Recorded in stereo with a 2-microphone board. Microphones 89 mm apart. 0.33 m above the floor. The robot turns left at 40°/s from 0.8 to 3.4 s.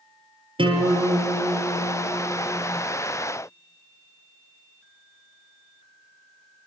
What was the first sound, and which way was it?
A guitar, 70° right.